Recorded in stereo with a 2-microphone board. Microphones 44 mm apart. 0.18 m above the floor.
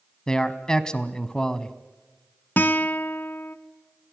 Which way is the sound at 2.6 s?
50° left (ahead or behind).